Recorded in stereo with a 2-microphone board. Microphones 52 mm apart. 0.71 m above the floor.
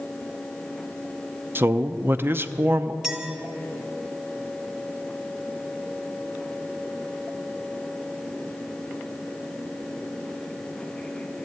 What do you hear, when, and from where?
1.6 s a man speaking: 40° right (ahead or behind), 0.6 m
3.0 s a clink: 15° right (ahead or behind), 2 m